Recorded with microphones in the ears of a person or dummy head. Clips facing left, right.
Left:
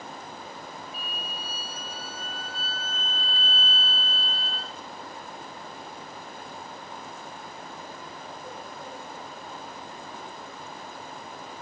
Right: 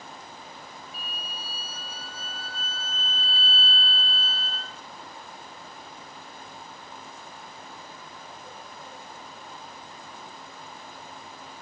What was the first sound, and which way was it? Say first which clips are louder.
A violin: left 3 dB; 35° right (ahead or behind).